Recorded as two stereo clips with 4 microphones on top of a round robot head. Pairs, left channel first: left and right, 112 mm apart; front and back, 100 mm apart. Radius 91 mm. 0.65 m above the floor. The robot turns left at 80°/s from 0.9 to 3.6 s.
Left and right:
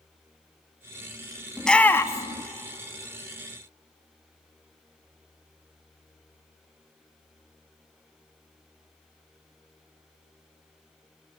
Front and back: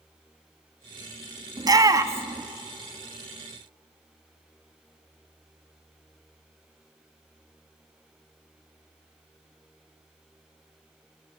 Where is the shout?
Straight behind, 1.3 m; by 2.4 s 110° left, 1.3 m.